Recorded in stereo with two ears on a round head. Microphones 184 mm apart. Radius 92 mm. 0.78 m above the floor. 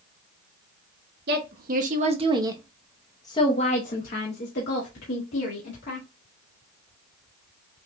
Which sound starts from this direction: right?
A woman speaking, at 1.3 s.